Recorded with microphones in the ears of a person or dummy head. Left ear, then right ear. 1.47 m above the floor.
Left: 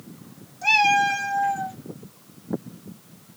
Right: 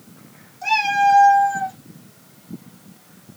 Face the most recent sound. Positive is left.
turn(degrees=-25)  # may be behind; listen again after turning